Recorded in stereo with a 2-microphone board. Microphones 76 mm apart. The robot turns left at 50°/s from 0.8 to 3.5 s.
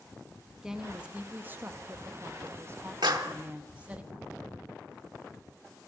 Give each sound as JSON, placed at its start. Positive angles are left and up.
{"t": 0.6, "sound": "a woman speaking", "azimuth_deg": -15, "distance_m": 0.9}
{"t": 3.0, "sound": "a clap", "side_deg": -80, "distance_m": 1.2}